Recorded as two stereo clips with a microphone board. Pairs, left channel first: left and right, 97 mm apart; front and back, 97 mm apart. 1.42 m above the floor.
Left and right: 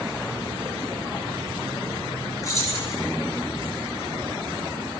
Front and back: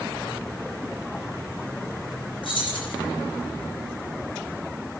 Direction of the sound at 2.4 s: 30° left.